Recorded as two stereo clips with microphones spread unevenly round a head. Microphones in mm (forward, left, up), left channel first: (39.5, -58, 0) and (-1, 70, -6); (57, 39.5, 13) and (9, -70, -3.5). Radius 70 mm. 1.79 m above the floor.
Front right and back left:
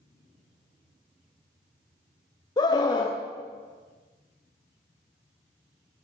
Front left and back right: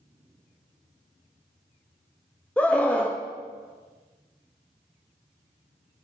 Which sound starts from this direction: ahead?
A scream, at 2.6 s.